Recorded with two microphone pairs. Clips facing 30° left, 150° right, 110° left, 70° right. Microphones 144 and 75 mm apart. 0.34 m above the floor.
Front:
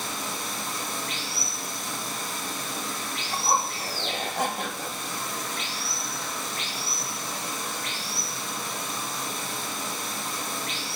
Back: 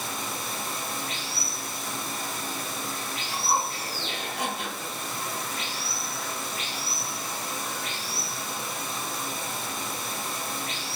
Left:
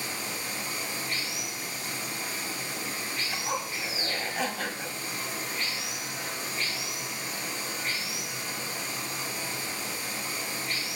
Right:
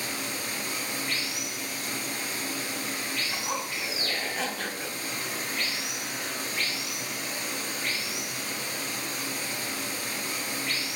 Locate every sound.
0.0 s running water: 65° right, 1.5 m
3.3 s a zipper: 25° left, 1.0 m